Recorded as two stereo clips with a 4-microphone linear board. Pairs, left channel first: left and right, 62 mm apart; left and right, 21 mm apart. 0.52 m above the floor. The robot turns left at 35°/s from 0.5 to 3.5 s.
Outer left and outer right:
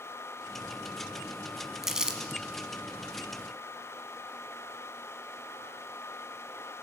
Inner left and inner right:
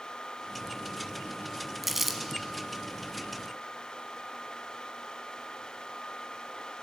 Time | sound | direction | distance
1.8 | crumpling | 5° right (ahead or behind) | 0.6 m